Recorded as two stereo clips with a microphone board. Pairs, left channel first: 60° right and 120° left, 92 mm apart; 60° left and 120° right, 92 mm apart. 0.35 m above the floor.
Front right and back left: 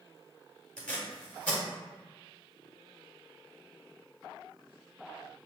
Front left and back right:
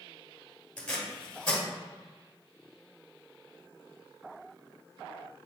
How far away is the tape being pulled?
About 1.0 m.